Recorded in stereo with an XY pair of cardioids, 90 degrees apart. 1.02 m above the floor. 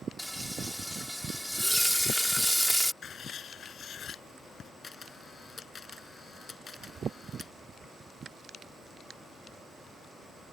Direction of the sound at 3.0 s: 60° left.